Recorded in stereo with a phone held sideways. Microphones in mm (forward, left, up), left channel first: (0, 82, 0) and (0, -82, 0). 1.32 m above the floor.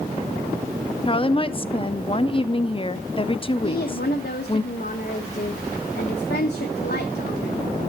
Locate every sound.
1.1 s a woman speaking: 35° left (ahead or behind), 0.5 m
3.6 s a woman speaking: 85° left, 1.2 m